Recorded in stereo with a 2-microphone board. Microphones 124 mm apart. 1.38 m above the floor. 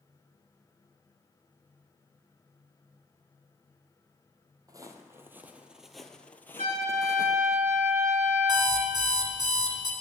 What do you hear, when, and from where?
4.7 s footsteps: 30° right (ahead or behind), 1.8 m; by 7.6 s 40° left (ahead or behind), 1.7 m
6.6 s a trumpet: 65° right (ahead or behind), 5.5 m
8.5 s an alarm clock: 35° right (ahead or behind), 3.5 m